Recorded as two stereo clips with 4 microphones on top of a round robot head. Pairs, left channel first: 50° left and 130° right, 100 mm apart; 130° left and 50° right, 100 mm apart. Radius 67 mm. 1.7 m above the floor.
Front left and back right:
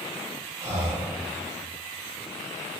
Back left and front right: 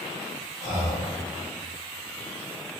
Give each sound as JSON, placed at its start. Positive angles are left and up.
{"t": 0.6, "sound": "breathing", "azimuth_deg": -75, "distance_m": 0.9}